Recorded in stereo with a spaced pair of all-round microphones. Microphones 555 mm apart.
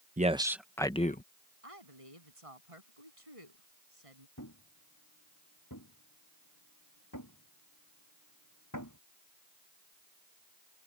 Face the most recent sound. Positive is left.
turn(degrees=35)  # may be behind; listen again after turning